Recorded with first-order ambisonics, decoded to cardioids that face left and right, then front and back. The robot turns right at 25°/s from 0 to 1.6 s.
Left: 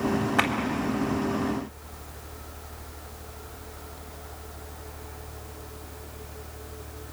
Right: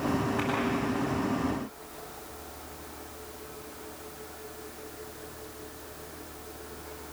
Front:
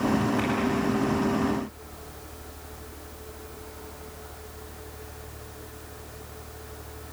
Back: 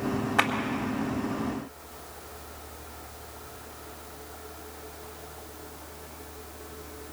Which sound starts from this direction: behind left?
A clap, at 0.4 s.